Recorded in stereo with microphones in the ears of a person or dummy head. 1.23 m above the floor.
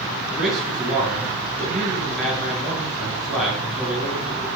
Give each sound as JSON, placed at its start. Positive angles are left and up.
{"t": 0.3, "sound": "a man speaking", "side_deg": 0, "distance_m": 6.5}